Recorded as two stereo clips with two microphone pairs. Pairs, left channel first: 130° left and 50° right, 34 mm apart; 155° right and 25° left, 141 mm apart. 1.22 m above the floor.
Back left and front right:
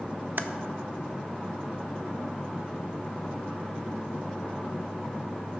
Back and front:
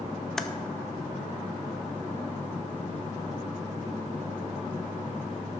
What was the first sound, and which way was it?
Typing on a keyboard, 70° right.